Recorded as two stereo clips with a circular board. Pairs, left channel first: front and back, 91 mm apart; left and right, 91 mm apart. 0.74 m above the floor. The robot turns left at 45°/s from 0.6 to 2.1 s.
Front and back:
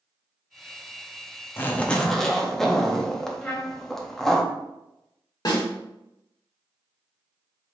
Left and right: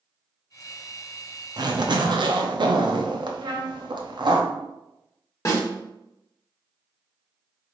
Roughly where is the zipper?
Ahead right.